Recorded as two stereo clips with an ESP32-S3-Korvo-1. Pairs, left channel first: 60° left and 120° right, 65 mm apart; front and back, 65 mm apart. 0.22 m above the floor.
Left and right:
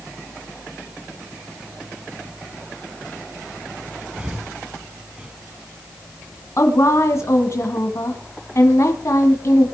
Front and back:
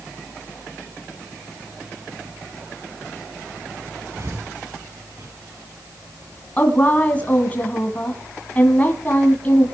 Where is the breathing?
170° left, 1.2 m.